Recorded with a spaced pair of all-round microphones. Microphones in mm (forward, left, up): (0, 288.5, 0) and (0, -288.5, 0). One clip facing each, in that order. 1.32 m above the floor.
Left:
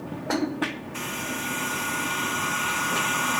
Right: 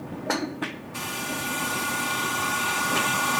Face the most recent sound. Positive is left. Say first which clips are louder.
# left 1 dB
turn(degrees=-60)  # may be behind; listen again after turning